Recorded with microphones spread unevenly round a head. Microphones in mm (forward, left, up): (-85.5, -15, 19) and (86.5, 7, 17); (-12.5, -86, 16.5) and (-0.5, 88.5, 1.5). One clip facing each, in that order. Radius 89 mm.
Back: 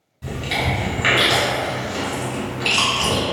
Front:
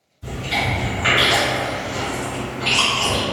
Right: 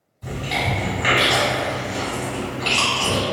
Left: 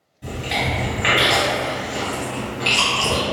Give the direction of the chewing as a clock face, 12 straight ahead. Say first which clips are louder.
Even, even; 6 o'clock.